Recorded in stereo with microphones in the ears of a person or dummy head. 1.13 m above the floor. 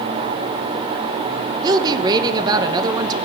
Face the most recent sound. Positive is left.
turn(degrees=-20)  # may be behind; listen again after turning